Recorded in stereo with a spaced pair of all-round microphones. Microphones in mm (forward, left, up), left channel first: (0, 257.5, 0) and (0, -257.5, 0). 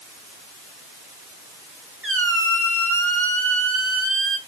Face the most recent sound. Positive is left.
turn(degrees=-25)  # may be behind; listen again after turning